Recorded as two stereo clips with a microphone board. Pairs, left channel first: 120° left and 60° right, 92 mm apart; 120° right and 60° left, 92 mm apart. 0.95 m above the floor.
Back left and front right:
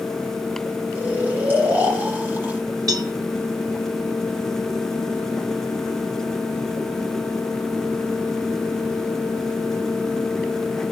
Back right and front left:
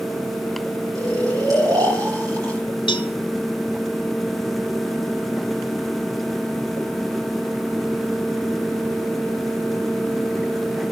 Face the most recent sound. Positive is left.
turn(degrees=-100)